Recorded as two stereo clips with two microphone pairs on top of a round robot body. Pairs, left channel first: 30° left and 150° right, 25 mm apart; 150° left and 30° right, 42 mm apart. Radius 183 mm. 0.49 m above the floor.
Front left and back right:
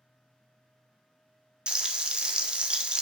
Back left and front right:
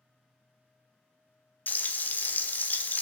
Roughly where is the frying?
Behind left.